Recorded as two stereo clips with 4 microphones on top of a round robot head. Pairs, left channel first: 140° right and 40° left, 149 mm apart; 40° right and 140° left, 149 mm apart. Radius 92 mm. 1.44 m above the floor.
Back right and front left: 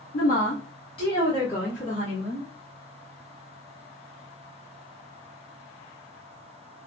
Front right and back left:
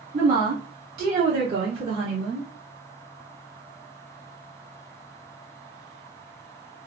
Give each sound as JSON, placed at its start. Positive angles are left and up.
{"t": 0.1, "sound": "a woman speaking", "azimuth_deg": -175, "distance_m": 2.0}